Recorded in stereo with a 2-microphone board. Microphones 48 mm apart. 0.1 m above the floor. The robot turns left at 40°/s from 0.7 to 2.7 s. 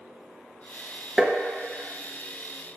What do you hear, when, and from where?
1.2 s tapping: 10° right (ahead or behind), 0.8 m